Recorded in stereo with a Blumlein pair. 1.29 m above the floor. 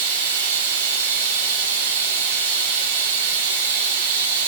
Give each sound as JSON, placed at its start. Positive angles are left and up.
{"t": 0.0, "sound": "running water", "azimuth_deg": -60, "distance_m": 0.8}